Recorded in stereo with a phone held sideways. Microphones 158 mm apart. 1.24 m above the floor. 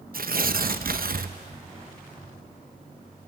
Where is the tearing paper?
70° right (ahead or behind), 0.7 m.